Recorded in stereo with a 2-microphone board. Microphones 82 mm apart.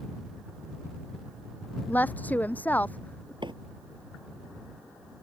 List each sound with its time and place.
1.9 s a woman speaking: 20° left (ahead or behind); by 3.3 s 15° left (ahead or behind)
3.4 s a microwave: 70° right (ahead or behind)